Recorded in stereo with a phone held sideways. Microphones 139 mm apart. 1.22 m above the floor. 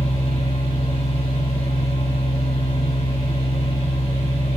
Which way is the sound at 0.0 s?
45° left (ahead or behind).